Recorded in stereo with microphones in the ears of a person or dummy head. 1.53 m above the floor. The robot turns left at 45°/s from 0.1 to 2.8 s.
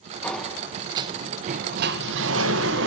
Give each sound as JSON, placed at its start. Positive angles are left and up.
{"t": 0.2, "sound": "a sliding door", "azimuth_deg": 5, "distance_m": 1.4}